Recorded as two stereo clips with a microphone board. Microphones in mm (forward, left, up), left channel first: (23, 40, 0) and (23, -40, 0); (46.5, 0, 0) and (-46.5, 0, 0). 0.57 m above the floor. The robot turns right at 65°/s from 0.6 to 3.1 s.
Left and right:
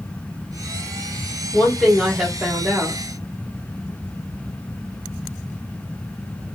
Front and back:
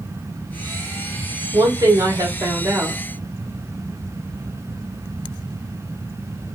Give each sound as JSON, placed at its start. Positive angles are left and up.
{"t": 1.5, "sound": "a woman speaking", "azimuth_deg": 145, "distance_m": 1.1}